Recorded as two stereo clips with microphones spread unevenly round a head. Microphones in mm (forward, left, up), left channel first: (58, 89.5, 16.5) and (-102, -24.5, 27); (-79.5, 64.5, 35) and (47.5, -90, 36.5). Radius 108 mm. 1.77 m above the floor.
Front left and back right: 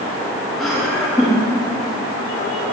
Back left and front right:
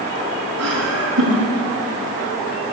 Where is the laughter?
55° right, 4 m.